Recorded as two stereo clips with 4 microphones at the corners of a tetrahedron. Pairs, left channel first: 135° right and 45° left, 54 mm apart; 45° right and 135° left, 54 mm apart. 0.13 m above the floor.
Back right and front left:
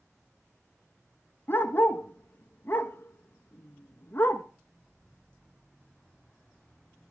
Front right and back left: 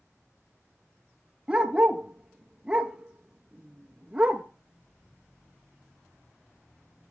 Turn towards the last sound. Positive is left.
turn(degrees=-155)